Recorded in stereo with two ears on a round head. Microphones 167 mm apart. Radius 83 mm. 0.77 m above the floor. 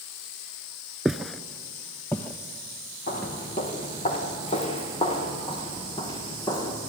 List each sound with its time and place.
1.1 s footsteps: 5° right (ahead or behind), 0.7 m; by 3.3 s 10° left (ahead or behind), 3.5 m
3.1 s footsteps: 40° left (ahead or behind), 4.5 m; by 6.8 s 20° left (ahead or behind), 5.5 m